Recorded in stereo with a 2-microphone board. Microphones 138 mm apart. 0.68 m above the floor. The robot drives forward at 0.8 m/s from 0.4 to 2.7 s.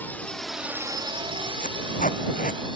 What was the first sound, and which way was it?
A drone, 15° left (ahead or behind).